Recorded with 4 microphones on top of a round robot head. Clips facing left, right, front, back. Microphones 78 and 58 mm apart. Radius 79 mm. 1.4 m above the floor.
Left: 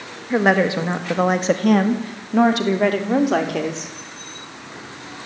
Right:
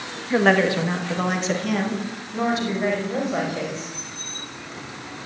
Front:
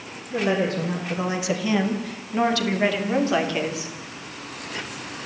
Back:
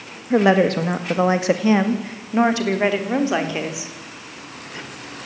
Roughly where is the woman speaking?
Behind.